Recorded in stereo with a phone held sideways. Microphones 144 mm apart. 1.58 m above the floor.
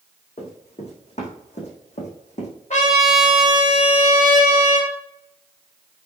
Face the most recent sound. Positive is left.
turn(degrees=60)  # may be behind; listen again after turning